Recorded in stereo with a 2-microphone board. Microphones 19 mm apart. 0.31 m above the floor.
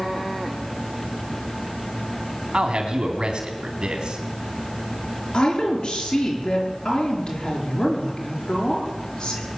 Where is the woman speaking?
55° left (ahead or behind), 5 m.